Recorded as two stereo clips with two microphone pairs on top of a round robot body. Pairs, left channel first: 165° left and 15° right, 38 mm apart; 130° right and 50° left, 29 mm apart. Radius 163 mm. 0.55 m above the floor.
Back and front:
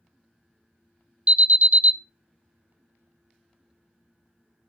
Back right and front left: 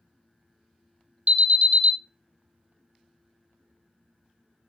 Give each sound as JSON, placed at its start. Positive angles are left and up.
{"t": 1.3, "sound": "an alarm", "azimuth_deg": 20, "distance_m": 1.1}